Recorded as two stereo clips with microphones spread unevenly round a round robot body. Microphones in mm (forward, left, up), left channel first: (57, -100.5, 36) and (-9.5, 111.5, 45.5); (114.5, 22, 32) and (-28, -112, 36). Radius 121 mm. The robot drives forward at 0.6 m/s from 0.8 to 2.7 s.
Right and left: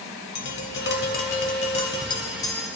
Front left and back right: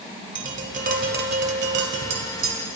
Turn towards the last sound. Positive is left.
turn(degrees=-150)